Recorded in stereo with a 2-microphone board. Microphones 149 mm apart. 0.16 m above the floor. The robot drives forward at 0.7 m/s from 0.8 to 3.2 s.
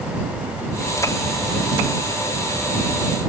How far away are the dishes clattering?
I don't hear dishes clattering.